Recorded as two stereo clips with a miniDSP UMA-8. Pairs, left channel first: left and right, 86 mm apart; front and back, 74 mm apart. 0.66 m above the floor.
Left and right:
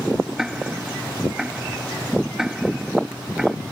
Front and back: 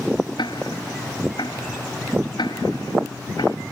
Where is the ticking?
5° right.